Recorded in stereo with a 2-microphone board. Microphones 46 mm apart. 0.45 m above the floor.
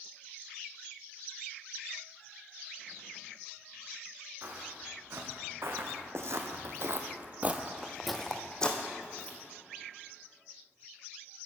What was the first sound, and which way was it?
Footsteps, 55° right (ahead or behind).